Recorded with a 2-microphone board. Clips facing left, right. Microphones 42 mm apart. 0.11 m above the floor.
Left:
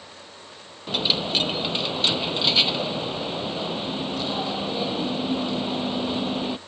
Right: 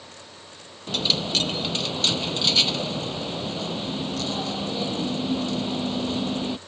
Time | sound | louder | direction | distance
0.9 | a dropped coin | left 1 dB | 15° left (ahead or behind) | ?